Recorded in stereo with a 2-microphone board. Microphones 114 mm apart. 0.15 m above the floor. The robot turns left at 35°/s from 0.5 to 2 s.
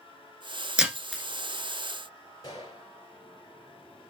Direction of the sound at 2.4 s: 35° left (ahead or behind).